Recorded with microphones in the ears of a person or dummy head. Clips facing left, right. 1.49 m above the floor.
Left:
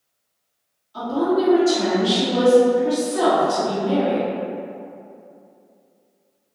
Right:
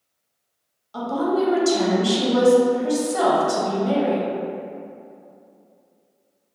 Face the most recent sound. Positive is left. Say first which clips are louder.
# left 2 dB
turn(degrees=-55)  # may be behind; listen again after turning